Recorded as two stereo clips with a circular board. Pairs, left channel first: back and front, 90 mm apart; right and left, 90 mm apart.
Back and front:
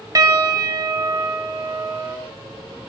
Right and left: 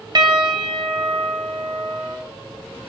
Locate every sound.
0.1 s a piano: 50° left, 0.8 m